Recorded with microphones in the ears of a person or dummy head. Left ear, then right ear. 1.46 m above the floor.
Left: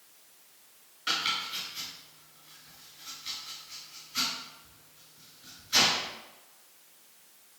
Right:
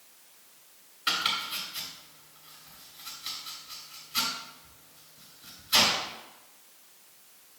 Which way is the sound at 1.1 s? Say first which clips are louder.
Right 2 dB; 25° right (ahead or behind).